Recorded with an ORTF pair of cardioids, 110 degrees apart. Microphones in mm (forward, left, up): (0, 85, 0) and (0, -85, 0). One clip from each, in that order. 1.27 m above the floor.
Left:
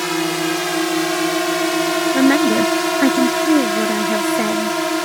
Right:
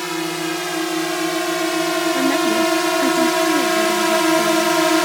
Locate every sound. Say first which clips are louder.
0.0 s a drone: left 3 dB; 25° left; by 5.1 s 25° right
2.1 s a woman speaking: left 5 dB; 50° left